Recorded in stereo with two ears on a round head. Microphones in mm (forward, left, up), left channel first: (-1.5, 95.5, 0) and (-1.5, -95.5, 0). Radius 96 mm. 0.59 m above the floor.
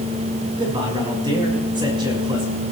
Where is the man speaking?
20° right (ahead or behind), 5 m.